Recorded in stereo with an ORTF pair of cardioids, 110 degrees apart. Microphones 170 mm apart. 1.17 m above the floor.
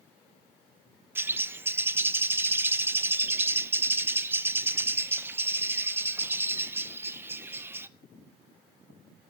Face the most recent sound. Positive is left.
turn(degrees=-10)